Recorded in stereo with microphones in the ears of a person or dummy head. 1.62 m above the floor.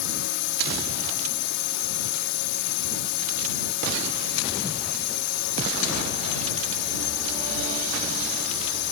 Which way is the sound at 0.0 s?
55° left (ahead or behind).